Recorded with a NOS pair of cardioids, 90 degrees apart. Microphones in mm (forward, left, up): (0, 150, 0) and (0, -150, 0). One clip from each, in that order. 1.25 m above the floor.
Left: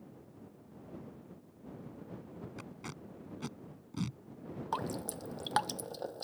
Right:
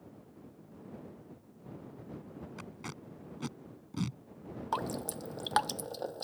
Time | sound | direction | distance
2.6 | tape being pulled | 10° right | ?
4.7 | dripping | 15° right | ?